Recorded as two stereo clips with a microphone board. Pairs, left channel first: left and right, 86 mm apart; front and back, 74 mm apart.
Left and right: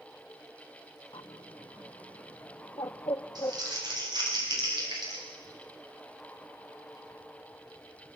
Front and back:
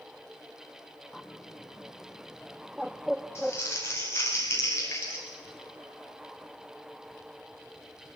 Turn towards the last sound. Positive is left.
turn(degrees=-55)